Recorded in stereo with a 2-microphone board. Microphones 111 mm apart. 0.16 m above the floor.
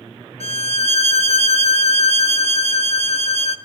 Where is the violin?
70° left (ahead or behind), 0.6 m.